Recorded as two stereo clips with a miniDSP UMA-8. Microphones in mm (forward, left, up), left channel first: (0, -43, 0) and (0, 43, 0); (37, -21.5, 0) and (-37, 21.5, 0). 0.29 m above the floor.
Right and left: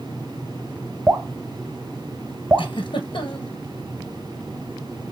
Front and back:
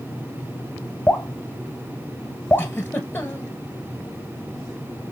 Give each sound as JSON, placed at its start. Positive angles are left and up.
{"t": 1.1, "sound": "dripping", "azimuth_deg": 30, "distance_m": 0.7}
{"t": 2.6, "sound": "a giggle", "azimuth_deg": -95, "distance_m": 1.1}